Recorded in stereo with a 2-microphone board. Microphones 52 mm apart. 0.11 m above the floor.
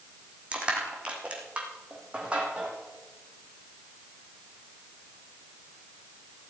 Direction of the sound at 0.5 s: 25° right (ahead or behind).